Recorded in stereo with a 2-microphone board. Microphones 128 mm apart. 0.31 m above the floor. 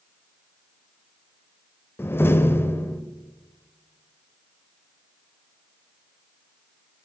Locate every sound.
2.0 s a door slam: 20° left (ahead or behind), 0.6 m